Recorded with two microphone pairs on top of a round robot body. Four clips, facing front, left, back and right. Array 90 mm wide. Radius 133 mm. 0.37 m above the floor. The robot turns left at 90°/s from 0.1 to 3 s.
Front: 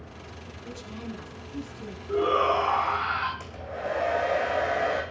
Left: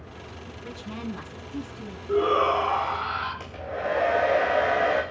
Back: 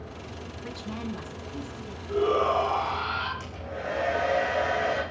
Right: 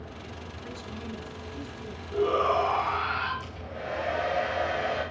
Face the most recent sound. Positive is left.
turn(degrees=70)